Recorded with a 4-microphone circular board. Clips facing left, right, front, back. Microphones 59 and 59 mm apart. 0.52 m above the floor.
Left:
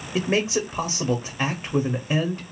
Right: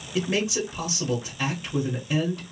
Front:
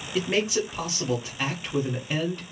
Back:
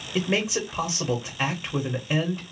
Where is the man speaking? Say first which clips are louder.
Left 3 dB, even; 105° left, 0.8 m.